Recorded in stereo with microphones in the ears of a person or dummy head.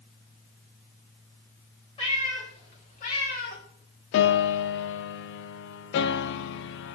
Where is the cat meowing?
30° left (ahead or behind), 3.5 m; by 3.6 s 55° left (ahead or behind), 2.5 m.